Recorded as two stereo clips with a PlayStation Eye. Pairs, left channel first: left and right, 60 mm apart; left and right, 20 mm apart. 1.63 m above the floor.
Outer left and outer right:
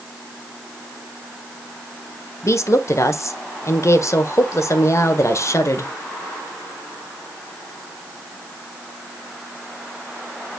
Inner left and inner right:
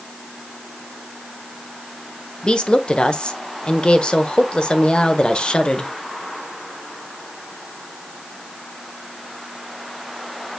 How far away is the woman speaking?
About 1.3 m.